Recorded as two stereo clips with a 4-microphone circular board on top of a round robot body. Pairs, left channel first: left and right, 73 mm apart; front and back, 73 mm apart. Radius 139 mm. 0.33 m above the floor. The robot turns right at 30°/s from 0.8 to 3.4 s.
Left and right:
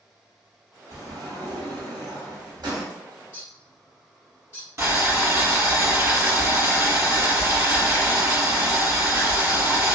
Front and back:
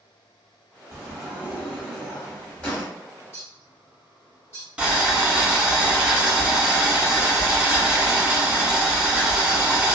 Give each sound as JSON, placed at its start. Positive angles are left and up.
{"t": 0.9, "sound": "a sliding door", "azimuth_deg": -125, "distance_m": 1.3}
{"t": 3.3, "sound": "a bird", "azimuth_deg": 40, "distance_m": 1.6}
{"t": 4.8, "sound": "boiling", "azimuth_deg": -110, "distance_m": 1.8}